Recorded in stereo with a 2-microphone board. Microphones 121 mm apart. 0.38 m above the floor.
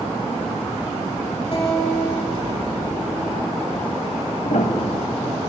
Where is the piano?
75° left (ahead or behind), 0.7 m.